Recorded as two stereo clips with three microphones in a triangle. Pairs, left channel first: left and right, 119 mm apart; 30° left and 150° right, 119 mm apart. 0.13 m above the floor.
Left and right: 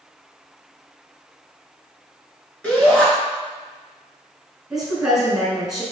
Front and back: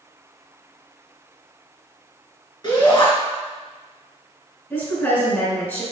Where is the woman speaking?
10° right, 1.3 m.